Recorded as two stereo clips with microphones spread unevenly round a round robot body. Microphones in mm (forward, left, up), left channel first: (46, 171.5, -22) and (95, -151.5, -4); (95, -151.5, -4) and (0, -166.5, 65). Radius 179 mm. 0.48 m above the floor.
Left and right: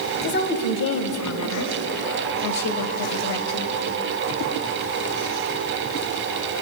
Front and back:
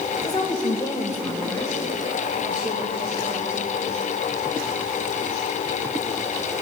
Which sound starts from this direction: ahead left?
A woman speaking, at 0.2 s.